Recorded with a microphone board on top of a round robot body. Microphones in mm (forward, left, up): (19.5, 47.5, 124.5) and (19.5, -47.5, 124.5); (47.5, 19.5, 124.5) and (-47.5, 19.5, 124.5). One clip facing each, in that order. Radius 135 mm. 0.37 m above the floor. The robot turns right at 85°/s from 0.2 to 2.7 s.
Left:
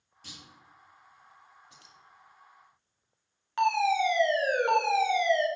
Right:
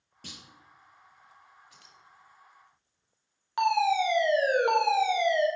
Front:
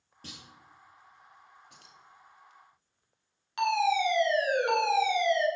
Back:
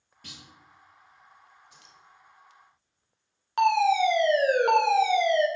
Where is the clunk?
60° right, 3.5 m; by 0.4 s 40° right, 3.5 m.